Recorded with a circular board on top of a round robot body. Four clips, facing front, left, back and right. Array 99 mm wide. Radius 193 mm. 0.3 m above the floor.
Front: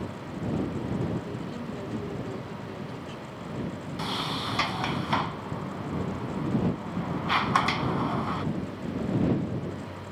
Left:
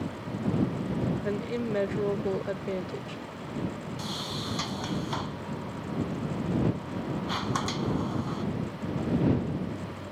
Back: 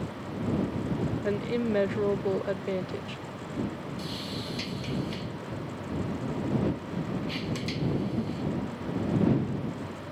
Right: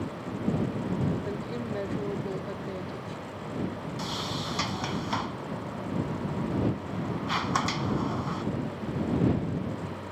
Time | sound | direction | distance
1.2 | a woman speaking | 155° left | ?
4.0 | a sliding door | 15° right | ?